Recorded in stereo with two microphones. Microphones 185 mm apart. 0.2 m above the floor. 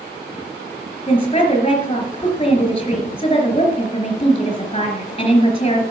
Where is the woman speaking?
30° left (ahead or behind), 3 m.